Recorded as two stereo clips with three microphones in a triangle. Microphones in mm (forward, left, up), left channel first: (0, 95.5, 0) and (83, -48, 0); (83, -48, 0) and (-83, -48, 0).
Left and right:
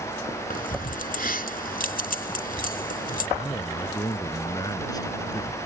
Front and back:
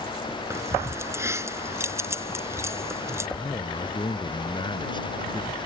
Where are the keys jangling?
110° left.